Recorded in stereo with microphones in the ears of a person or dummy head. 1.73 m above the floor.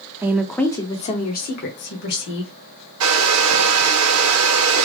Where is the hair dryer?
85° right, 0.6 m.